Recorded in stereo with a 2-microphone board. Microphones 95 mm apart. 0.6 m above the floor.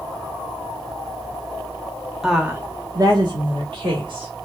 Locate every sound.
2.2 s a woman speaking: 5° right (ahead or behind), 0.9 m; by 4.5 s 60° right (ahead or behind), 2 m